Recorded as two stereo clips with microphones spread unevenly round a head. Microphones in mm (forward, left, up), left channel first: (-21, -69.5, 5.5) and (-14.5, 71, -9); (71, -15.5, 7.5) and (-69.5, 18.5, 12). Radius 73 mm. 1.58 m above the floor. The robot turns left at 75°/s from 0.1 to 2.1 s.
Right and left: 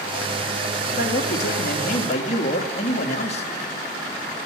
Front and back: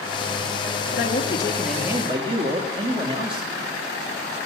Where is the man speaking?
50° right, 2.5 m; by 3.5 s 135° right, 2.5 m.